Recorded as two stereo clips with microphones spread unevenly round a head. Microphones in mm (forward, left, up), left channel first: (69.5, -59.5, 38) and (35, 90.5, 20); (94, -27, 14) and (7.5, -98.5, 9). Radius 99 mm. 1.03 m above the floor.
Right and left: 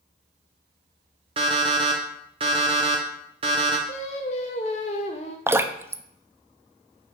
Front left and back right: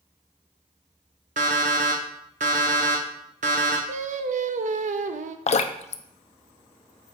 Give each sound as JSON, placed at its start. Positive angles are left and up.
{"t": 1.4, "sound": "an alarm clock", "azimuth_deg": 170, "distance_m": 0.8}
{"t": 3.9, "sound": "singing", "azimuth_deg": -135, "distance_m": 0.6}
{"t": 5.5, "sound": "dripping", "azimuth_deg": 25, "distance_m": 0.6}